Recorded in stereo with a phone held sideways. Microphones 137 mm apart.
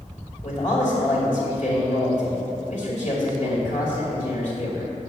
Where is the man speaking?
65° left (ahead or behind), 2.5 m.